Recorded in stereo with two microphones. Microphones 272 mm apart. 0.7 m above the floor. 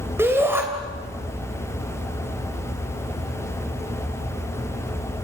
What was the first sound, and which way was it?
A shout, 10° right (ahead or behind).